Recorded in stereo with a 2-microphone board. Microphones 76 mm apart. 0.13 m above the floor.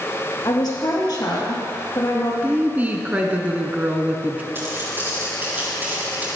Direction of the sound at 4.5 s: 30° right (ahead or behind).